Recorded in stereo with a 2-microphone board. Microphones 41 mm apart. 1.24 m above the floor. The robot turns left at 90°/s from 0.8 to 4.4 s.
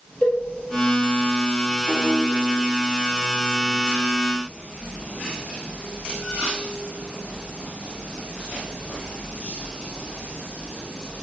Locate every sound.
0.2 s a cowbell: 25° left (ahead or behind), 1.8 m
1.9 s a piano: 45° left (ahead or behind), 2.5 m; by 2.2 s 65° left (ahead or behind), 2.5 m